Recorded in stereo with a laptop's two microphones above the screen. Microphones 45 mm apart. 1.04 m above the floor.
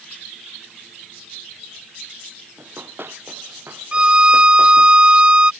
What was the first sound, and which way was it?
Running footsteps, 60° right (ahead or behind).